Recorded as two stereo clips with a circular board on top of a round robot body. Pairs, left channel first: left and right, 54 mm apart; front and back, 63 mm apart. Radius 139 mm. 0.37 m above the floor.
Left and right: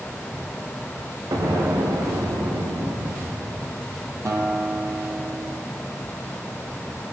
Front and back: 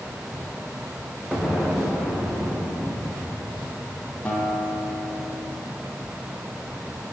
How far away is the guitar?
About 8.5 m.